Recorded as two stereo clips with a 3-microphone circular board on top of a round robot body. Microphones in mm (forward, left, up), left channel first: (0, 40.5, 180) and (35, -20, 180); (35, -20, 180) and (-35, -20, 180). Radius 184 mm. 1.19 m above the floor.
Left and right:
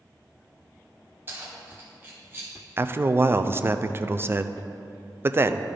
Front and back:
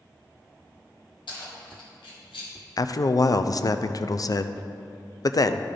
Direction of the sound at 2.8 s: 10° right.